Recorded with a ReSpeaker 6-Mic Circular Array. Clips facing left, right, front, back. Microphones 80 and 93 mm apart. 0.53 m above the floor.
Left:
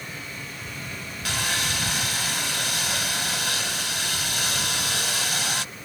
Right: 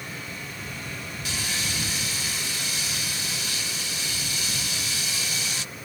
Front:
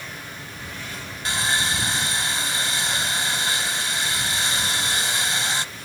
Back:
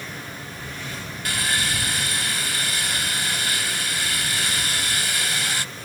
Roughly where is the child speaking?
No child speaking in this recording.